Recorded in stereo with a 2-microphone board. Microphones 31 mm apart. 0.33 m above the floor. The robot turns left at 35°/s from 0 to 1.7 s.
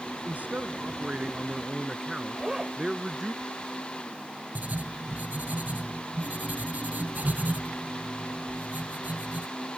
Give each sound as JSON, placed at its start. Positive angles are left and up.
{"t": 0.2, "sound": "a man speaking", "azimuth_deg": -110}
{"t": 2.3, "sound": "a zipper", "side_deg": -15}
{"t": 4.5, "sound": "writing", "side_deg": -60}